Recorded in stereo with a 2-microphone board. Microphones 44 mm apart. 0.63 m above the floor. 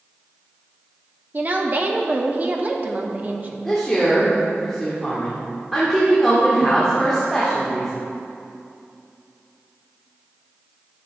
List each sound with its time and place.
1.3 s a woman speaking: 35° right (ahead or behind), 0.7 m
3.6 s a woman speaking: 5° left (ahead or behind), 1.2 m